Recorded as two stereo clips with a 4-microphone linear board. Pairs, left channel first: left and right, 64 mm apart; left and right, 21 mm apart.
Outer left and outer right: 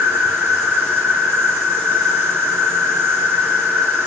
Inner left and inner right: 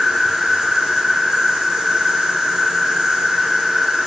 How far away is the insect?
About 3.5 m.